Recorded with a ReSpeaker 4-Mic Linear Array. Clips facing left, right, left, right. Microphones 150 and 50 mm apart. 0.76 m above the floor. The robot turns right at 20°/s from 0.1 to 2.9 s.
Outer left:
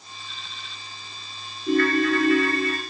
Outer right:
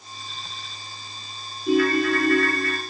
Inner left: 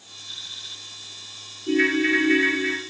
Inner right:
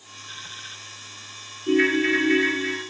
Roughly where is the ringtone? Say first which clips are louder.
Outer right 1 dB, even; centre.